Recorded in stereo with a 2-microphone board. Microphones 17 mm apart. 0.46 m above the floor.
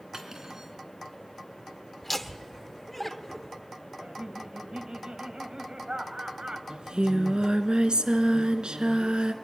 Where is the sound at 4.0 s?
70° right (ahead or behind), 2.5 m.